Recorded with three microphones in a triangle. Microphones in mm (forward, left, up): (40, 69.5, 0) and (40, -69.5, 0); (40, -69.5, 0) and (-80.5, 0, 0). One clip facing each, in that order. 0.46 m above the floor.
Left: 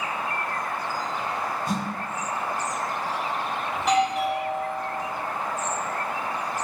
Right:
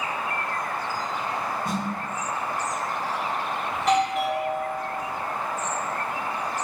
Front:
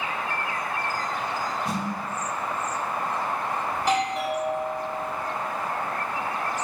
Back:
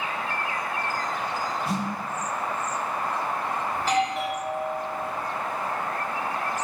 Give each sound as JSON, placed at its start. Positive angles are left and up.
{"t": 1.6, "sound": "a snare drum", "azimuth_deg": -95, "distance_m": 1.9}
{"t": 3.7, "sound": "a doorbell", "azimuth_deg": 5, "distance_m": 1.2}